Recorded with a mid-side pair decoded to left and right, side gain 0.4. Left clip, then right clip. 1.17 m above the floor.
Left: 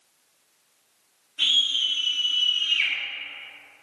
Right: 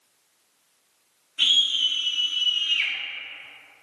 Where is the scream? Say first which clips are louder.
Right 1 dB; 45° right, 1.6 m; by 2.9 s 15° left, 1.3 m.